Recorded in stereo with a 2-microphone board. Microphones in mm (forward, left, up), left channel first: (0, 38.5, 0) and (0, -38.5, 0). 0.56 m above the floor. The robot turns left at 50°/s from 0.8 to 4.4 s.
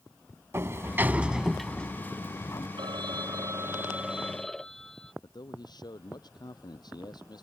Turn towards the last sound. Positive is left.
turn(degrees=65)  # may be behind; listen again after turning